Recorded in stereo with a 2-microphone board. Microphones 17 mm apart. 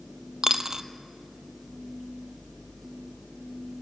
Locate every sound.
0.4 s a dropped coin: 40° right (ahead or behind), 0.7 m